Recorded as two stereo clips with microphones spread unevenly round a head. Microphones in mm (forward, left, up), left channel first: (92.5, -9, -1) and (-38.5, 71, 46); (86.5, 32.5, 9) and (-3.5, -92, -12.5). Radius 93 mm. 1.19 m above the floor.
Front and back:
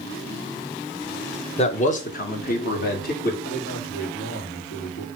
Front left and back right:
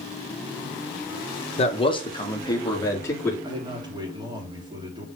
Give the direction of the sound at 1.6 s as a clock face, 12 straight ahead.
12 o'clock.